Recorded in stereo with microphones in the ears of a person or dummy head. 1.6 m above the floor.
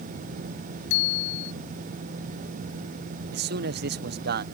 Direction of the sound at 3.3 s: 60° right (ahead or behind).